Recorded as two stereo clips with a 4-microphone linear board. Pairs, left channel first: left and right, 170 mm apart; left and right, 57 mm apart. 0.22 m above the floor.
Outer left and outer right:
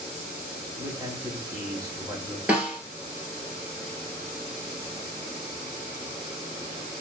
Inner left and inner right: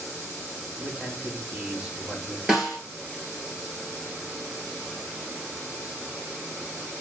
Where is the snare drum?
10° right (ahead or behind), 1.3 m.